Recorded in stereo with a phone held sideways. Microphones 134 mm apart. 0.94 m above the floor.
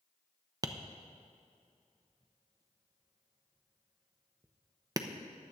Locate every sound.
0.6 s tapping: 25° right (ahead or behind), 0.7 m